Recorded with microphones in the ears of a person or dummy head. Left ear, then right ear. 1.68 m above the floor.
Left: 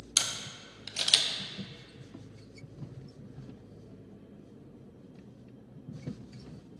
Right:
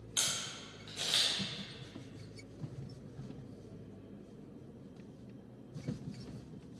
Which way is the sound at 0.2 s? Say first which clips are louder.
Left 5 dB; 60° left (ahead or behind).